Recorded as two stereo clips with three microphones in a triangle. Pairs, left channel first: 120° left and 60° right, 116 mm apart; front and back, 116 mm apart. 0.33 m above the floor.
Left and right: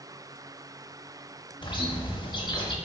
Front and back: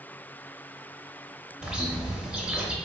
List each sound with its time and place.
1.6 s a bird: 100° left, 0.6 m